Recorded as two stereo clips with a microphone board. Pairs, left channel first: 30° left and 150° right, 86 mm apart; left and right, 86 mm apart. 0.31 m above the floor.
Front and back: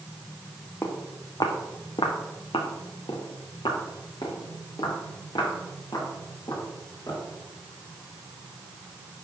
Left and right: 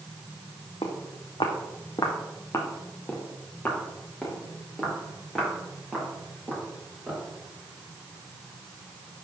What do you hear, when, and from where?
0.8 s footsteps: 90° left, 1.4 m; by 7.2 s 5° right, 5 m